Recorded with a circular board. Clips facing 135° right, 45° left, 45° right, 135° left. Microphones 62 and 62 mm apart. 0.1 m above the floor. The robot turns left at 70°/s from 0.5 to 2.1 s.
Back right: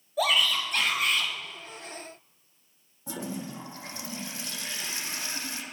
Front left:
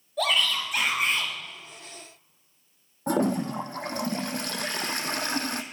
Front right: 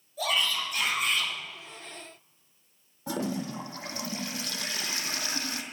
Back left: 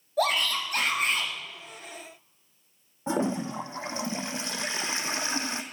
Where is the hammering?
I don't hear hammering.